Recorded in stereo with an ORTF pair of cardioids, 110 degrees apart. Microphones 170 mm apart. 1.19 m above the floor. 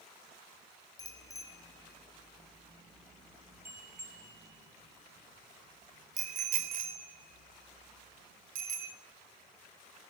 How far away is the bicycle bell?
About 3.5 m.